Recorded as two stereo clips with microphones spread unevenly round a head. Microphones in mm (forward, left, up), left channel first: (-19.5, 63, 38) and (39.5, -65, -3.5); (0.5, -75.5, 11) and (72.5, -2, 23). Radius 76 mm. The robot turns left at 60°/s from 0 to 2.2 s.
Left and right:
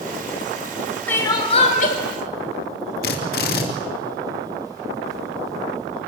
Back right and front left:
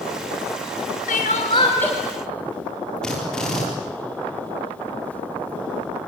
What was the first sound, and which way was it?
Crying, 170° right.